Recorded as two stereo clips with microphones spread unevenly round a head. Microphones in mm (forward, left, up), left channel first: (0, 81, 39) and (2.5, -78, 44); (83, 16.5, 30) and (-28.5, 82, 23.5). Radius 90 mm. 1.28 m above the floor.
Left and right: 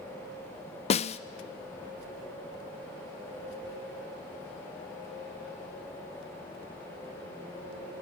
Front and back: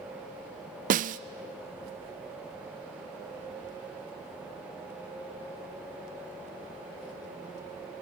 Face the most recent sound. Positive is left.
turn(degrees=140)